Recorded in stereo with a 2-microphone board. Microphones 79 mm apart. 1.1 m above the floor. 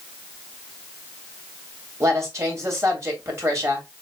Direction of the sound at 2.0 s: 35° right (ahead or behind).